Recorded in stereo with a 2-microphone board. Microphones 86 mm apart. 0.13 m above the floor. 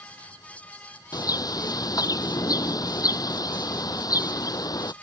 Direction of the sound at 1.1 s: 50° left (ahead or behind).